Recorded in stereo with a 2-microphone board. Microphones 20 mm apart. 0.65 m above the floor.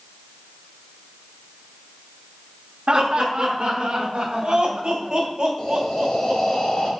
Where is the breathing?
50° left (ahead or behind), 1.7 m.